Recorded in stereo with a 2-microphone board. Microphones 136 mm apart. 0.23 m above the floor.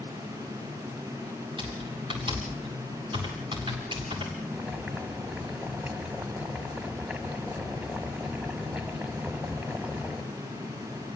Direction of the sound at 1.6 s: 35° right (ahead or behind).